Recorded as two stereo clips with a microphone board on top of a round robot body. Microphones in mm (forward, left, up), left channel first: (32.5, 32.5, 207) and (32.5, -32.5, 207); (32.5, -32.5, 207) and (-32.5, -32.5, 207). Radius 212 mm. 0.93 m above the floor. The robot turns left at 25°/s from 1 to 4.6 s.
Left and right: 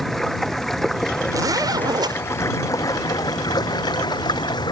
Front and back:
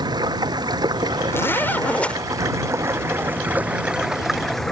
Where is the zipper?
55° right; by 2.2 s 75° right.